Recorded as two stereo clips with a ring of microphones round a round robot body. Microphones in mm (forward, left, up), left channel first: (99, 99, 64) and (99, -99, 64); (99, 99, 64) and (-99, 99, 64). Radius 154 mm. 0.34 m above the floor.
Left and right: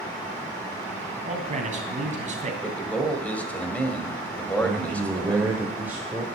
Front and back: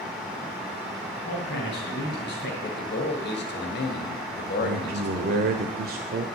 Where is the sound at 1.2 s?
40° right, 3 m.